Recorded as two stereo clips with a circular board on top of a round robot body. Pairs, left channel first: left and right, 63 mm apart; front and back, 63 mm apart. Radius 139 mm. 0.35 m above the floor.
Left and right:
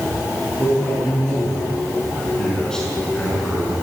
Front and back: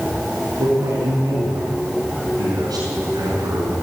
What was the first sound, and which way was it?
A man speaking, 165° left.